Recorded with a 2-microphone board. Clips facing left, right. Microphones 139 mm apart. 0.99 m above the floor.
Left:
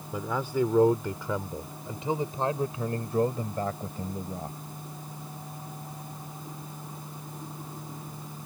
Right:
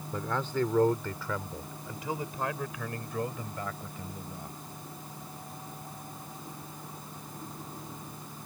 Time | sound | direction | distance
0.1 | a man speaking | 10° left (ahead or behind) | ?